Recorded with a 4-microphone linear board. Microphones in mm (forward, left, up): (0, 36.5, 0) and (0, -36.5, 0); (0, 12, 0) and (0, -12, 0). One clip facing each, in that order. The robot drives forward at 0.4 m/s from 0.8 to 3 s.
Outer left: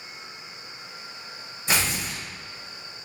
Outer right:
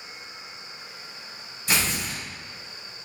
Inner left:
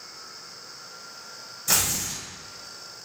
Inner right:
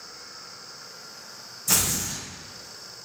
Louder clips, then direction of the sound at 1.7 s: Even, even; 25° left (ahead or behind).